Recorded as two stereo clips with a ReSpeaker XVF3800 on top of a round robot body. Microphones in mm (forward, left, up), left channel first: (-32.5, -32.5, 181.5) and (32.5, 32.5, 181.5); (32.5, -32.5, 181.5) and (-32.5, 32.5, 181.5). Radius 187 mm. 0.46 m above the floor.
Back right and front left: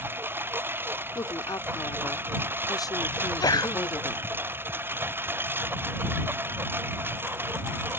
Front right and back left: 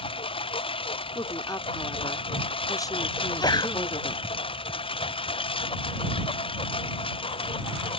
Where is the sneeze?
90° right.